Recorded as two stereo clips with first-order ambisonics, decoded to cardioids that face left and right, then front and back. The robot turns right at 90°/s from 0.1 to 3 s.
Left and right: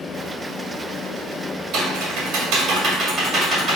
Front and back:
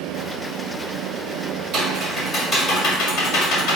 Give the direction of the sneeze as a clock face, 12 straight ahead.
I don't hear a sneeze.